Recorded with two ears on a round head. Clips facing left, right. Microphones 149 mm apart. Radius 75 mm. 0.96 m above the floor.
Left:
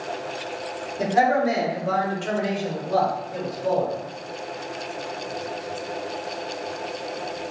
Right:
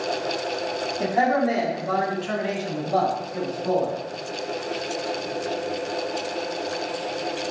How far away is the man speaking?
About 2.5 m.